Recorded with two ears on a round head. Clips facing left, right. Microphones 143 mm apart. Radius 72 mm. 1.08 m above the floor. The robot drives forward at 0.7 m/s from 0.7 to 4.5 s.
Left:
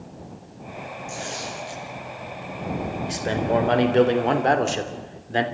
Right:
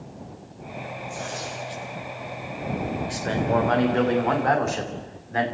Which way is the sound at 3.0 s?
25° left (ahead or behind).